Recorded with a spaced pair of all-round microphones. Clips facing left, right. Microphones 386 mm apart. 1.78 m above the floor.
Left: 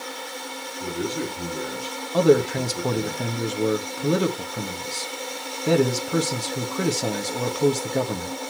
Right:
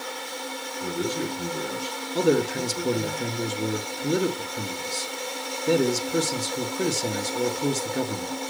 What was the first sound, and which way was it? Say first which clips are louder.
A man speaking: even; 35° left (ahead or behind).